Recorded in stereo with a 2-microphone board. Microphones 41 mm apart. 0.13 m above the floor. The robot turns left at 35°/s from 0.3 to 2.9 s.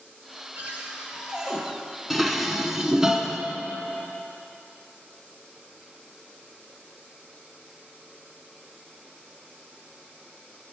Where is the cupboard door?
125° right, 2 m; by 1.6 s 165° right, 2 m.